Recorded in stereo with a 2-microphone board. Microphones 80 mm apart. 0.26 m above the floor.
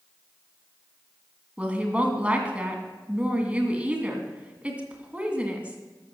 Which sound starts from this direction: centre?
A woman speaking, at 1.6 s.